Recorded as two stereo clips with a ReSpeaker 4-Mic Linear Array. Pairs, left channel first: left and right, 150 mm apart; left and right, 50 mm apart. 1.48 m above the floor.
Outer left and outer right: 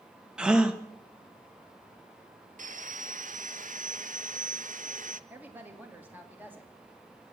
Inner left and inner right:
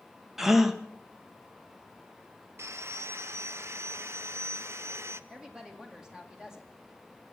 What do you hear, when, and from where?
0.4 s a gasp: 5° right (ahead or behind), 0.9 m
2.6 s sawing: 60° right (ahead or behind), 0.6 m
5.3 s a woman speaking: 10° right (ahead or behind), 2.5 m